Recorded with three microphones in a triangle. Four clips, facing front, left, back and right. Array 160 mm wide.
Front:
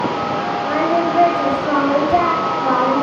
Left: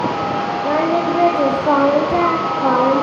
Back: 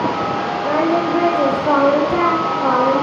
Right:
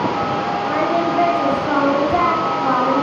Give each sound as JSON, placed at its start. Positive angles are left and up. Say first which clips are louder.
{"t": 0.6, "sound": "singing", "louder": "left 3 dB, back 1 dB", "azimuth_deg": 130, "distance_m": 4.5}